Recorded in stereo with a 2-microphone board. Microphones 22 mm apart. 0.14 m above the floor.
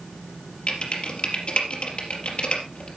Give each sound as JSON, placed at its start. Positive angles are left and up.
{"t": 0.7, "sound": "typing on a keyboard", "side_deg": 60, "distance_m": 3.5}